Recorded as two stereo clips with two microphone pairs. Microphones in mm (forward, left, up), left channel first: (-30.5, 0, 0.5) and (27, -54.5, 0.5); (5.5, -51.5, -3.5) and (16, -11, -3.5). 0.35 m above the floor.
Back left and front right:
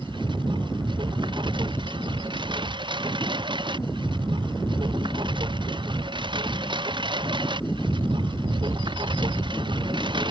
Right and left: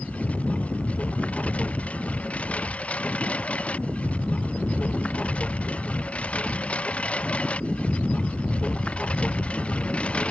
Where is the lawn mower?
45° right; by 10.3 s 40° right.